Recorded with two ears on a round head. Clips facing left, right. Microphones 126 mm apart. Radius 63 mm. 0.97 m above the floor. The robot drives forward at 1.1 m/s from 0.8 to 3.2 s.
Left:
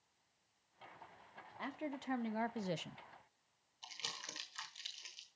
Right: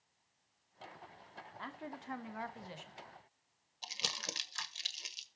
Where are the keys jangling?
No keys jangling in this recording.